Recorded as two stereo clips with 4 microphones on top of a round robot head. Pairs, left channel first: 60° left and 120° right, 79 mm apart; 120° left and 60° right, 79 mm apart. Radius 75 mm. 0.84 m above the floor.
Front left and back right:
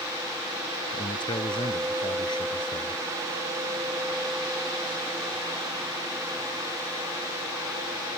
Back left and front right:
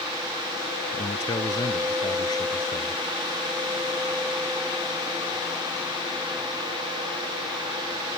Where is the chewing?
No chewing in this recording.